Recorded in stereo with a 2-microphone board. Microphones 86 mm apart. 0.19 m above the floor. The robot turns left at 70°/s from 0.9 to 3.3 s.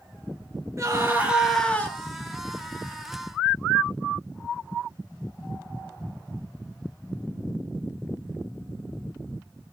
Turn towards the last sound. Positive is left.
turn(degrees=55)